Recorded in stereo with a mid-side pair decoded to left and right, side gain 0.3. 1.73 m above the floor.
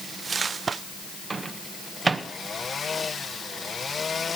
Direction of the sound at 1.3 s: 40° right.